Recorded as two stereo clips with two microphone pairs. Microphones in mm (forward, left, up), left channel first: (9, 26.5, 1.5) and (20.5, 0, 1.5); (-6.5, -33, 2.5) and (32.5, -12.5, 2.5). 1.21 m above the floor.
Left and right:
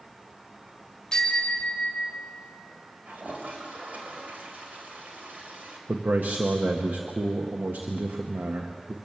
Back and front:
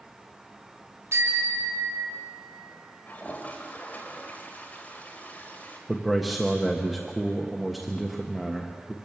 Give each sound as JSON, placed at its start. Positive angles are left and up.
{"t": 1.1, "sound": "a bicycle bell", "azimuth_deg": 45, "distance_m": 3.5}
{"t": 3.1, "sound": "a toilet flushing", "azimuth_deg": -100, "distance_m": 3.0}
{"t": 5.9, "sound": "a man speaking", "azimuth_deg": -65, "distance_m": 1.3}